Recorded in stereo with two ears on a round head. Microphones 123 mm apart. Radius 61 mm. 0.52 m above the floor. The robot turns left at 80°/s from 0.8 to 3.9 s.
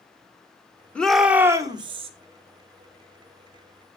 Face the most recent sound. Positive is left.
turn(degrees=140)